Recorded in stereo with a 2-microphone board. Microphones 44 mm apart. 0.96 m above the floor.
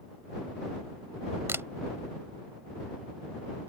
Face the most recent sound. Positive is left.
turn(degrees=-75)  # may be behind; listen again after turning